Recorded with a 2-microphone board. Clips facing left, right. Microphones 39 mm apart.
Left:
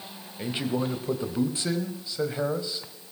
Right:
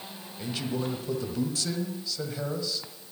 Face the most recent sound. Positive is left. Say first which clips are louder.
# left 3 dB
turn(degrees=25)  # may be behind; listen again after turning